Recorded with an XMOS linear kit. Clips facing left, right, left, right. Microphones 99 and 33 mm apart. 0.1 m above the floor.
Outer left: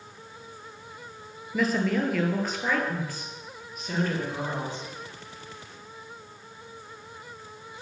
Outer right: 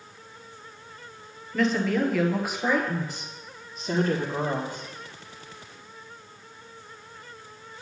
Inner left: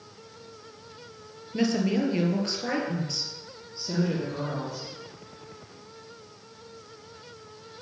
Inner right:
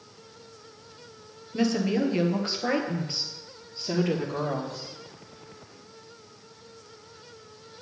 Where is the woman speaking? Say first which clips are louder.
Outer right 1 dB, even; 5° left (ahead or behind), 2.5 m; by 4.9 s 45° right (ahead or behind), 3 m.